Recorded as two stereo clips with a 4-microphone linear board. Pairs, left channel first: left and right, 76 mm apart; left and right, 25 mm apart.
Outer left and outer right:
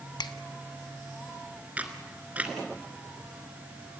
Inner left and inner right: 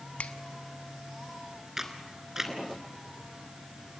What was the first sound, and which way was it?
A finger snap, 70° left (ahead or behind).